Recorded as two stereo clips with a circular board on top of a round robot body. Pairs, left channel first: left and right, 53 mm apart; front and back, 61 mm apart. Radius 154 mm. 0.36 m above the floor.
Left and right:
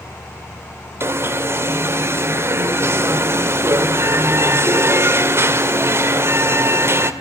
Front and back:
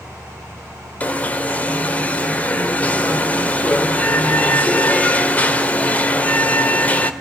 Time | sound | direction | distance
1.0 | an alarm | 65° right | 1.8 m